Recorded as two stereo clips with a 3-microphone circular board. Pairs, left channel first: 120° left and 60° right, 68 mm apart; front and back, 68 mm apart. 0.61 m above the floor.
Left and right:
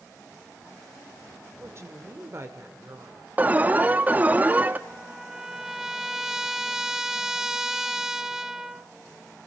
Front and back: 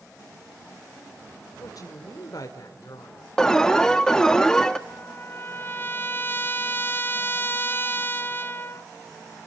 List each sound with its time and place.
1.6 s a woman speaking: 20° right, 2.5 m
3.4 s an alarm: 70° right, 1.1 m
4.9 s a trumpet: 15° left, 1.2 m